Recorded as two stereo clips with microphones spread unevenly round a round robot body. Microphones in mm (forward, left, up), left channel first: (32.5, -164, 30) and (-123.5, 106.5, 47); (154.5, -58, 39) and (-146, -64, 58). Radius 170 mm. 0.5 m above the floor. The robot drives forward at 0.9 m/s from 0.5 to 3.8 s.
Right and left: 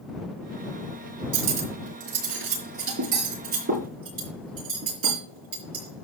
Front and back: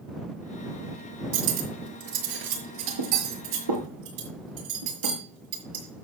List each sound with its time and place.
1.3 s cutlery clinking: 160° left, 4 m; by 6.0 s 170° left, 6 m